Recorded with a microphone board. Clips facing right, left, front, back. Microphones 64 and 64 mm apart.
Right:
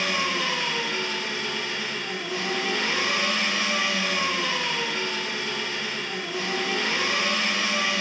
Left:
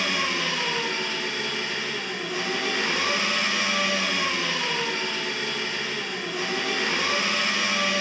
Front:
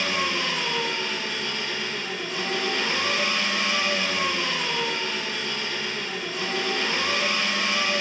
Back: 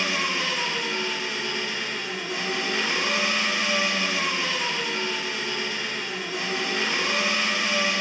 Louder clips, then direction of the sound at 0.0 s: Even, even; 110° left.